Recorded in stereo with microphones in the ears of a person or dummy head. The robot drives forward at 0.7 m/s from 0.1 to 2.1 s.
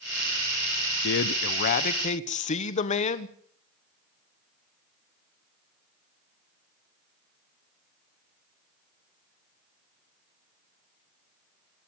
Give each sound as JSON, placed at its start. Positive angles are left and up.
{"t": 1.0, "sound": "a man speaking", "side_deg": 75, "distance_m": 0.8}